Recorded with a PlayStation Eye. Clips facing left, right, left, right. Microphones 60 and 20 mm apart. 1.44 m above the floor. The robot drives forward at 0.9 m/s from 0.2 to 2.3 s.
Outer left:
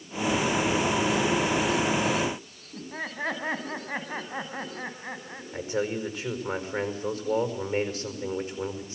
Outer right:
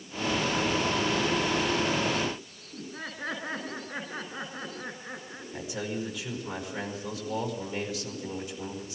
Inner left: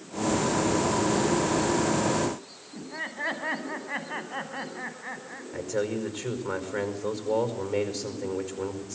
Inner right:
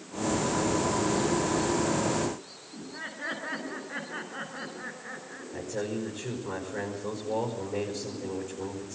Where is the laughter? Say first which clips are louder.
Outer left 4 dB, inner left 5 dB; 85° left, 10 m.